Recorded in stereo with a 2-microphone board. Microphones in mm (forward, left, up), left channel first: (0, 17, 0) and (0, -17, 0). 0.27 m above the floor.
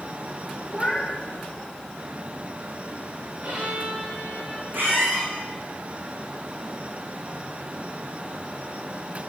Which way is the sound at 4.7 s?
85° right.